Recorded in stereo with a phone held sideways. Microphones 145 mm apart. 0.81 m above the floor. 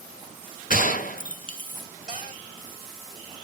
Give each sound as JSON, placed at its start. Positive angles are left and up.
{"t": 0.7, "sound": "a gunshot", "side_deg": 70, "distance_m": 0.5}
{"t": 2.1, "sound": "a cupboard door", "side_deg": 60, "distance_m": 1.7}